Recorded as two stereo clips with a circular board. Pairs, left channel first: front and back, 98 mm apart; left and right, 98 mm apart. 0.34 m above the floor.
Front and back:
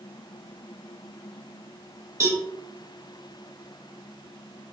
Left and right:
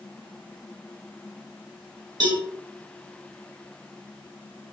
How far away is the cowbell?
About 1.0 m.